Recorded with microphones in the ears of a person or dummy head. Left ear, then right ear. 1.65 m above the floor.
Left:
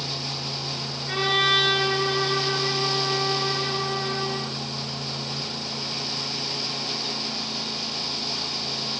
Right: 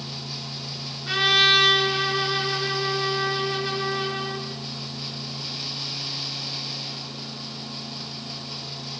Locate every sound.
1.1 s a trumpet: 70° right (ahead or behind), 8.5 m